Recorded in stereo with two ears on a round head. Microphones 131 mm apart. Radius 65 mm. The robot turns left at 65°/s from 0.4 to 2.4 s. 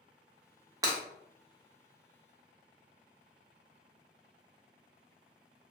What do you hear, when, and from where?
0.8 s breaking glass: 25° right (ahead or behind), 0.8 m; by 1.0 s 15° right (ahead or behind), 0.8 m